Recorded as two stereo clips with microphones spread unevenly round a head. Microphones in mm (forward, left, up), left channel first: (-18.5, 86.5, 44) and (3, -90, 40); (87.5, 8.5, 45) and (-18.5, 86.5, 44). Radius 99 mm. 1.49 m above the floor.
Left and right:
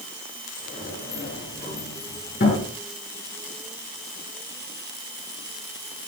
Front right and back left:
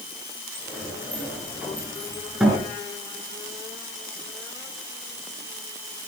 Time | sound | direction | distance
0.6 | a sliding door | 55° left | 7.5 m